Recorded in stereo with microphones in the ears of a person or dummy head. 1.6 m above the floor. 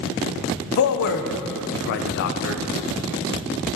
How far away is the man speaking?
About 0.7 m.